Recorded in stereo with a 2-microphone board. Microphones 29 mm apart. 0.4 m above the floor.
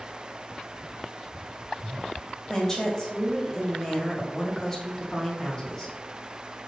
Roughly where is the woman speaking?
Centre.